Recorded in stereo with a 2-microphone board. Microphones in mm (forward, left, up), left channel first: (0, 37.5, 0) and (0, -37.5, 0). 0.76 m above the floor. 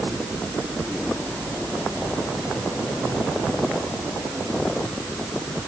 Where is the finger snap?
I don't hear a finger snap.